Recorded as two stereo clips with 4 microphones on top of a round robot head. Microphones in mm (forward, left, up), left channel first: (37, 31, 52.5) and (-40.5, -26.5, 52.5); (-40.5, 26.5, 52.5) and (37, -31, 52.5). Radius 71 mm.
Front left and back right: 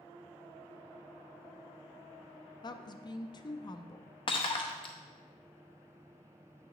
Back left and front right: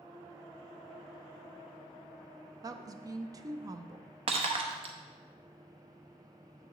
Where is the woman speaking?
5° left, 0.5 m.